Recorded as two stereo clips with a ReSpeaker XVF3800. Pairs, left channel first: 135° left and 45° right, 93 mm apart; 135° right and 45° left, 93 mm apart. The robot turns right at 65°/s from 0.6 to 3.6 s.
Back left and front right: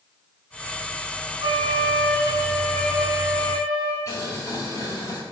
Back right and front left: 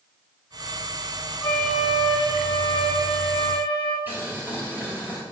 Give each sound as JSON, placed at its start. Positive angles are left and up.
{"t": 1.4, "sound": "a flute", "azimuth_deg": -65, "distance_m": 2.0}
{"t": 4.1, "sound": "boiling", "azimuth_deg": 100, "distance_m": 1.8}